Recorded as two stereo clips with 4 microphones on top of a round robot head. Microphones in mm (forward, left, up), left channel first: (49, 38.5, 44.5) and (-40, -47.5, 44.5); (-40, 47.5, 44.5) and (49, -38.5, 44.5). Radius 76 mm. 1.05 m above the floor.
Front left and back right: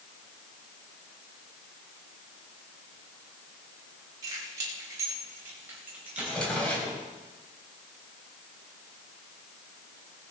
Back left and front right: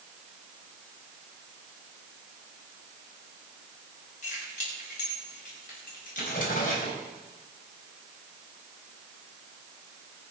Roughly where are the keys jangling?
Behind.